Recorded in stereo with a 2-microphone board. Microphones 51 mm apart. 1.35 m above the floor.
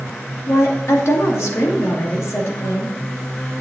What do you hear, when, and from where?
0.5 s a woman speaking: 65° left (ahead or behind), 2.5 m